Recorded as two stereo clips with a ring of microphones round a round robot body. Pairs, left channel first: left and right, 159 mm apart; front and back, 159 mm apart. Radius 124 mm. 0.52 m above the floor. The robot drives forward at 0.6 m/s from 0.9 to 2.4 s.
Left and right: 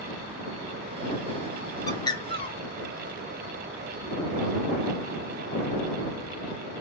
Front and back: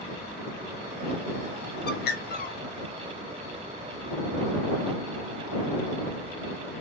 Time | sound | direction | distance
1.9 | a bird | 20° left | 1.0 m